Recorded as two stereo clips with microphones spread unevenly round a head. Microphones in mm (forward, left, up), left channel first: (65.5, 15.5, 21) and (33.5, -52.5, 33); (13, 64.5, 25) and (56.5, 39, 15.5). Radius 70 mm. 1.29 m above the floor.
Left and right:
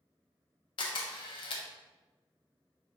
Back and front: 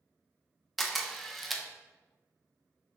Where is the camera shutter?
65° left, 0.5 m.